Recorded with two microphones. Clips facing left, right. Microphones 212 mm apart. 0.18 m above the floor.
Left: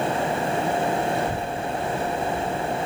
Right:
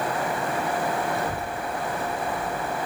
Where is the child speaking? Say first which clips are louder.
Left 3 dB; 65° left (ahead or behind), 1.4 m.